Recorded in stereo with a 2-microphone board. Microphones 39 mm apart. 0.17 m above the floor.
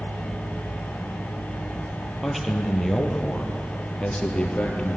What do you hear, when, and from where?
2.2 s a man speaking: centre (ahead or behind), 3.5 m; by 5.0 s 30° left (ahead or behind), 3.5 m